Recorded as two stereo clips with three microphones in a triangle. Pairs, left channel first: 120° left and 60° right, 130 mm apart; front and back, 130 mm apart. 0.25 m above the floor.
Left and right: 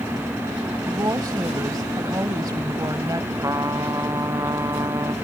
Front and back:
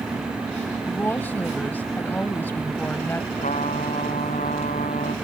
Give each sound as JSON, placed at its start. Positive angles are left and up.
{"t": 0.9, "sound": "a woman speaking", "azimuth_deg": -60}
{"t": 3.4, "sound": "a trumpet", "azimuth_deg": 5}